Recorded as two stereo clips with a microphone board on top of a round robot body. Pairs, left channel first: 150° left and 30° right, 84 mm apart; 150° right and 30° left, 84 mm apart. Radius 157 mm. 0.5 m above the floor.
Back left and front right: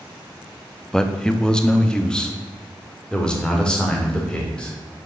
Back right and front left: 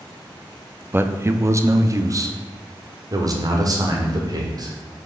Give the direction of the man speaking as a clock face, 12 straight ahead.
10 o'clock.